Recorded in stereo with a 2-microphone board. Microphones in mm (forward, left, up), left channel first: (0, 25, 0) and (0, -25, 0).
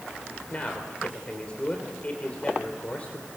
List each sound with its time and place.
0.5 s a man speaking: 25° left (ahead or behind), 3 m